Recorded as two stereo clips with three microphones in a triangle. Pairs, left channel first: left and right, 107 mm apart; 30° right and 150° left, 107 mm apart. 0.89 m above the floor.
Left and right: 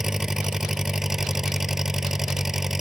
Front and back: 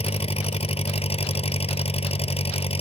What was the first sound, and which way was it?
An engine running, 5° right.